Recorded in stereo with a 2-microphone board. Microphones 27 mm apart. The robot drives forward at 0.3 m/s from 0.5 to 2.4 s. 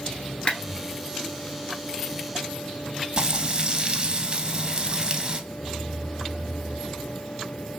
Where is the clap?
40° left (ahead or behind), 1.0 m.